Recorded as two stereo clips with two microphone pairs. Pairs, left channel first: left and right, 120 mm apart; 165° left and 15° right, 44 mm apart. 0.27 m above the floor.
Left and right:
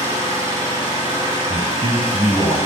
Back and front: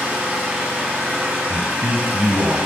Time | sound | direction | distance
0.0 | an engine running | 40° left | 2 m
1.5 | a man speaking | 45° right | 1.8 m